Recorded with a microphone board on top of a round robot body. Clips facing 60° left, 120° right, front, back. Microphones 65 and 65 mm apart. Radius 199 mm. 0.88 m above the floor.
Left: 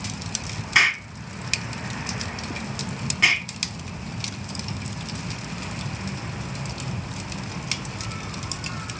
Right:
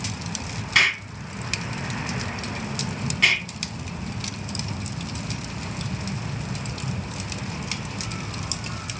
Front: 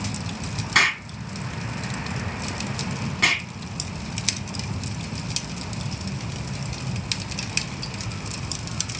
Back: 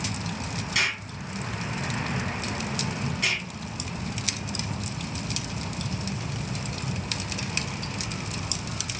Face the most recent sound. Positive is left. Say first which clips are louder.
# left 1 dB, front 9 dB
turn(degrees=-15)